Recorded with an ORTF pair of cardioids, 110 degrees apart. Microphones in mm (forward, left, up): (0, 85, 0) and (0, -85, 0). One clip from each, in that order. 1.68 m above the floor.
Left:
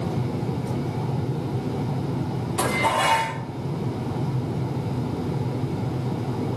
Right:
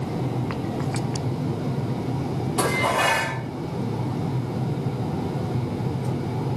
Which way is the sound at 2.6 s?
10° right.